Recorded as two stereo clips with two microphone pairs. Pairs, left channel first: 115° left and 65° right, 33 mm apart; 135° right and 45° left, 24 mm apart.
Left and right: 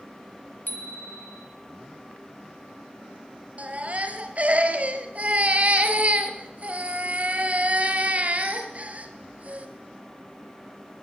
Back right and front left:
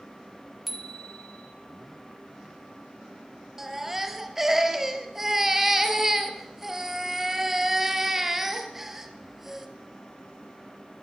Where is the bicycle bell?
135° left, 3.5 m.